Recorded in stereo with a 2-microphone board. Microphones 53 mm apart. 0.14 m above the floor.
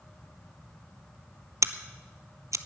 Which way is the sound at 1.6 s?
80° right.